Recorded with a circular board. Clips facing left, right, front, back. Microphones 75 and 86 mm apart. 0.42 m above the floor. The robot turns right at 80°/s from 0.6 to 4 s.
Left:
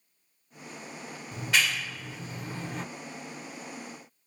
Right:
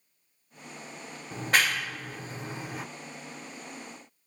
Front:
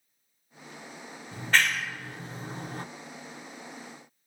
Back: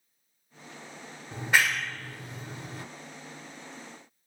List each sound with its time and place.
1.3 s a clap: 125° right, 0.8 m; by 2.9 s straight ahead, 0.8 m